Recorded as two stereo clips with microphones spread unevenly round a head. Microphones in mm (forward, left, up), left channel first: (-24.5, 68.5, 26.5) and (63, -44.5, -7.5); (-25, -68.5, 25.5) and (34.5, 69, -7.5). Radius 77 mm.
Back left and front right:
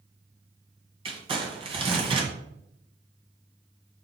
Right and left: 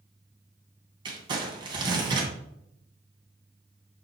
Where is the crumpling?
5° left, 2 m.